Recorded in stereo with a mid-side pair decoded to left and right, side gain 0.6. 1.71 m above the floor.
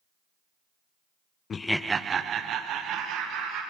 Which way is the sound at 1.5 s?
35° left.